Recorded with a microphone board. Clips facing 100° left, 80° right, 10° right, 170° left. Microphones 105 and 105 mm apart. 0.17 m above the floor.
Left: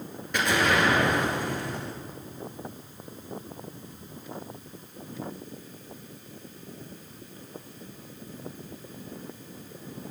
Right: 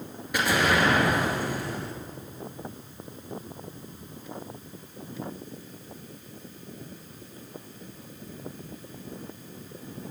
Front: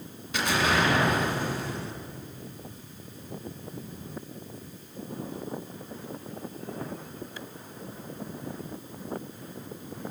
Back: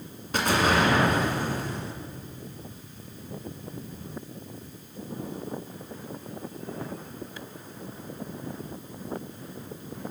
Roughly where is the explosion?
Behind.